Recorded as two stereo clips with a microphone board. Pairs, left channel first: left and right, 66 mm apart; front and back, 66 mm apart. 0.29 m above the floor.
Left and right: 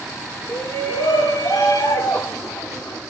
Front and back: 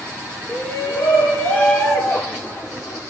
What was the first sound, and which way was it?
A shout, 70° left.